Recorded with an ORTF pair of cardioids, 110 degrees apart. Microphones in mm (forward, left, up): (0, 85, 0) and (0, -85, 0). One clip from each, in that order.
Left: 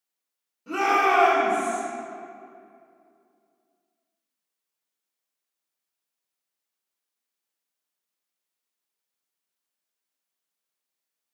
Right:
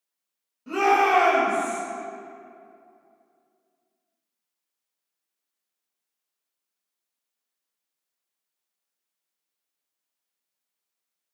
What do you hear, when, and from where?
0.7 s a shout: straight ahead, 0.9 m; by 1.8 s 15° right, 1.4 m